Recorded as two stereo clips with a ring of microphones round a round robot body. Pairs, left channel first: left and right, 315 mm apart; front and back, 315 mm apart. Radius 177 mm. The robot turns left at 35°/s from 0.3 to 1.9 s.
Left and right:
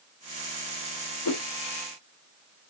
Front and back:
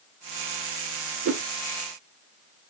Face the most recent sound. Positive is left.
turn(degrees=105)